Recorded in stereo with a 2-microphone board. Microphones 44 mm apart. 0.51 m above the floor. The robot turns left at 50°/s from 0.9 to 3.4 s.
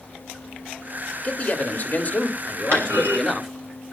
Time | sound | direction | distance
1.2 | a man speaking | 110° left | 1.5 m
2.7 | a clunk | 70° right (ahead or behind) | 4.5 m